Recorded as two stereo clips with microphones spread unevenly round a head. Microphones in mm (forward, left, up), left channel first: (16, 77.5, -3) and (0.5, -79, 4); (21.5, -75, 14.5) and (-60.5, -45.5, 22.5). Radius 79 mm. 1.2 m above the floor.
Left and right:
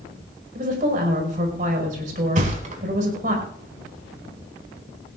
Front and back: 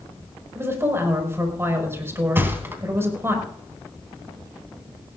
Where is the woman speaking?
140° right, 5 m.